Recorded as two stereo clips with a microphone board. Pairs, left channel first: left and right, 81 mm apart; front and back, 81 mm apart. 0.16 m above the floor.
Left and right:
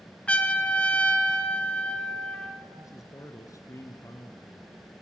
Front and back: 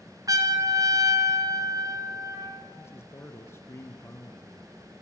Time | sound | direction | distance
0.3 | a trumpet | 160° left | 2 m
2.8 | a man speaking | 55° left | 2.5 m